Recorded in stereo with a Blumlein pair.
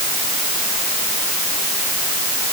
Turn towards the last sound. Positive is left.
No sound to turn to.